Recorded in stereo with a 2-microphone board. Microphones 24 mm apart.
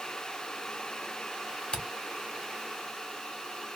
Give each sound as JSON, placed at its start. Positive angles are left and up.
{"t": 1.7, "sound": "a camera shutter", "side_deg": 45, "distance_m": 0.9}